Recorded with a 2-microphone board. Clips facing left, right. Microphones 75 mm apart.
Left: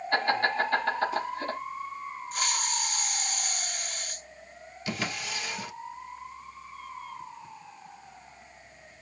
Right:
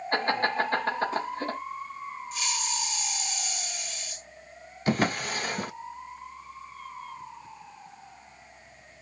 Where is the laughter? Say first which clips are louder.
Even; 35° right (ahead or behind), 2.5 m.